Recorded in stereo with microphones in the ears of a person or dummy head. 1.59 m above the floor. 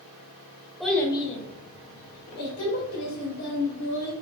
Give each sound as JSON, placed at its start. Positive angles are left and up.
{"t": 0.8, "sound": "a child speaking", "side_deg": 5, "distance_m": 1.0}